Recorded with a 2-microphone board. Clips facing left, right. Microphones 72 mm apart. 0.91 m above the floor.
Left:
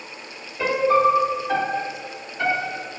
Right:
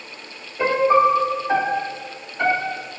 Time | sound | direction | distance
0.6 | a piano | 20° right (ahead or behind) | 1.2 m